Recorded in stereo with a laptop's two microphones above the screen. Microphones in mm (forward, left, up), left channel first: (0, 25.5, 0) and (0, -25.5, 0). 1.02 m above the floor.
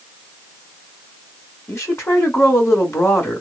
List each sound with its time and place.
1.7 s a woman speaking: 55° left (ahead or behind), 2.5 m